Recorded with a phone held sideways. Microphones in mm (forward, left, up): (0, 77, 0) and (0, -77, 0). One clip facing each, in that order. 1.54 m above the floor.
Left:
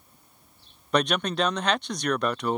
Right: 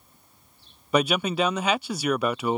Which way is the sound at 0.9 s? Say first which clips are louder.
Right 2 dB; 5° right (ahead or behind).